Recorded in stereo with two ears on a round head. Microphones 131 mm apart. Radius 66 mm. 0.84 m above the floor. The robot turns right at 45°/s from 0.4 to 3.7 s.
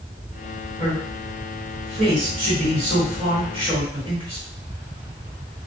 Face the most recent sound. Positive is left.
turn(degrees=-35)  # may be behind; listen again after turning